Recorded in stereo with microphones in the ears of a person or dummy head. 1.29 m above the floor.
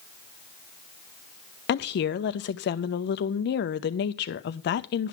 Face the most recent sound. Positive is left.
turn(degrees=50)  # may be behind; listen again after turning